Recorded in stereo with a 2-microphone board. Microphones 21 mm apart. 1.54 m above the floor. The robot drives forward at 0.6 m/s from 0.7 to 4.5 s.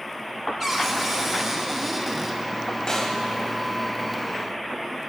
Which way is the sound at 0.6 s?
15° right (ahead or behind).